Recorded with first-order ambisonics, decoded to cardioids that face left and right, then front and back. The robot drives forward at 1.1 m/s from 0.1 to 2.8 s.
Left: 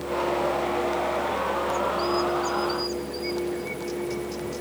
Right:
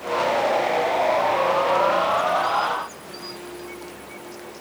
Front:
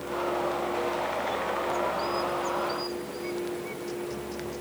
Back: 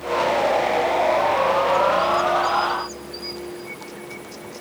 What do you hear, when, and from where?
Only background noise.